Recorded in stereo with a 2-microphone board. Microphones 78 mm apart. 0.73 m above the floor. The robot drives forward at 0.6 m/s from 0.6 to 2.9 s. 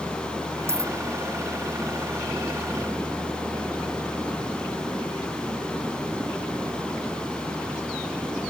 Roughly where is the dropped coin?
Right.